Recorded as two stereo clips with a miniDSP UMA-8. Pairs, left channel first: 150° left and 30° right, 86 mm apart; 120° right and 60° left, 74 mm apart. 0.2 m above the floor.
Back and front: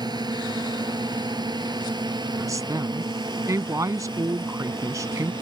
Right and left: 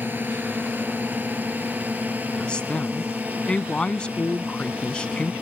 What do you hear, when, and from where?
0.0 s a drone: straight ahead; by 5.4 s 10° right
2.4 s a woman speaking: 50° right